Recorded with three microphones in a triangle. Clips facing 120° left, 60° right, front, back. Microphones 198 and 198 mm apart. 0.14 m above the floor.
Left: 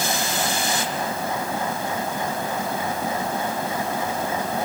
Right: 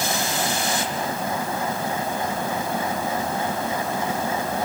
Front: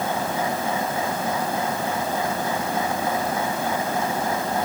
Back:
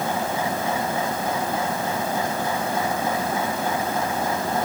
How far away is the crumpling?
I don't hear crumpling.